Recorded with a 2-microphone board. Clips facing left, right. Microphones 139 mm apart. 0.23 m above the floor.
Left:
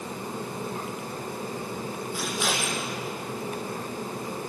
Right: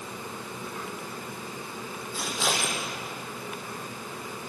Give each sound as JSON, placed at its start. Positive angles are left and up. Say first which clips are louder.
{"t": 2.1, "sound": "scissors", "louder": "right 1 dB", "side_deg": -25, "distance_m": 6.5}